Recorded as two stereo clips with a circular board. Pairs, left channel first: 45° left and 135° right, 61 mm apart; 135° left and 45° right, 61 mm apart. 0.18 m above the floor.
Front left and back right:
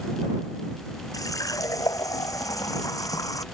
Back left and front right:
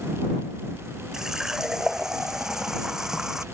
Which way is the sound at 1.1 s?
35° left.